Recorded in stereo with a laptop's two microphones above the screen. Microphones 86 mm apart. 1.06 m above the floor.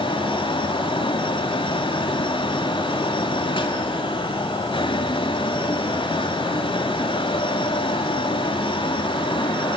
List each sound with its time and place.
0.0 s a fan: 75° left (ahead or behind), 2 m